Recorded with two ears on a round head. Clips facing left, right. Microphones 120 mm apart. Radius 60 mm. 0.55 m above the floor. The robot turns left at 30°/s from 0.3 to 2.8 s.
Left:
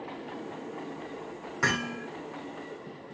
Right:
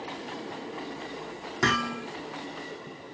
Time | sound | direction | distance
1.6 | hammering | 35° right (ahead or behind) | 5.5 m